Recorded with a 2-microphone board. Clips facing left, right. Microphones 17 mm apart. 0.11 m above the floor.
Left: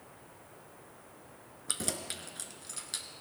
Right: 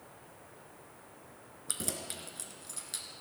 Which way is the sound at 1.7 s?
15° left (ahead or behind).